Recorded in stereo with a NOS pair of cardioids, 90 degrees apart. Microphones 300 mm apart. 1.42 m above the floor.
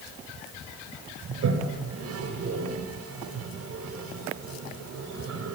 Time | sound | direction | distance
1.3 | a toilet flushing | 55° right | 5 m